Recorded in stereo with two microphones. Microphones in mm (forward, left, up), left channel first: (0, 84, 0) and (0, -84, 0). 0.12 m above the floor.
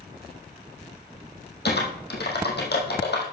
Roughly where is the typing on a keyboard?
Left.